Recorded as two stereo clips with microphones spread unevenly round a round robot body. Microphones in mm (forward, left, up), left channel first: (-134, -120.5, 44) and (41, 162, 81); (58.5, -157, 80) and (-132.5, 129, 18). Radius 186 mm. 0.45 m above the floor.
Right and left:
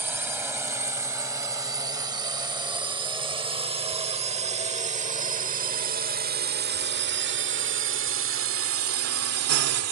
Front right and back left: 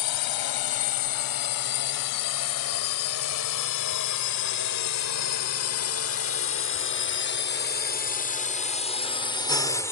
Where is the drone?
30° right; by 9.9 s 35° left.